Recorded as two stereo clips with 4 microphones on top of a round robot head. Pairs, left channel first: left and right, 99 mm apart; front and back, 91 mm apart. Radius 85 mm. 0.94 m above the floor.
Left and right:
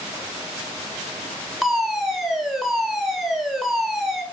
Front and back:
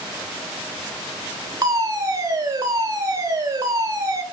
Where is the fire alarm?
Straight behind, 1.9 m.